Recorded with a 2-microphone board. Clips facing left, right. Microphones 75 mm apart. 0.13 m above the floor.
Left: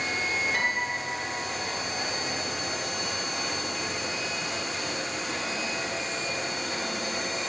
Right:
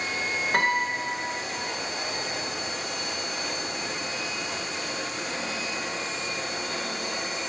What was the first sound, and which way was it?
A piano, 50° right (ahead or behind).